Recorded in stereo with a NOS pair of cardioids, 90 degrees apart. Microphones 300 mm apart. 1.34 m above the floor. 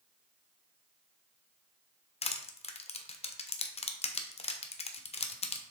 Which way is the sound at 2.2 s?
20° left.